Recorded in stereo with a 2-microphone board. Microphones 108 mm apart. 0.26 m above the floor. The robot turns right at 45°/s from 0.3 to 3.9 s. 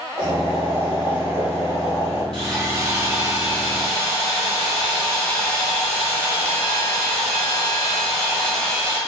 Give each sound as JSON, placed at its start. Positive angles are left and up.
{"t": 0.2, "sound": "boiling", "azimuth_deg": -75, "distance_m": 1.5}
{"t": 2.3, "sound": "sawing", "azimuth_deg": -60, "distance_m": 1.1}